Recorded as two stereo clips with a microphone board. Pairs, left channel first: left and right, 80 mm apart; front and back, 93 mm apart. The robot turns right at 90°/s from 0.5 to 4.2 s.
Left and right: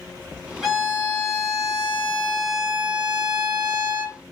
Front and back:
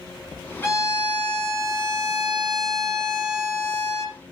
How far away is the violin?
About 1.5 m.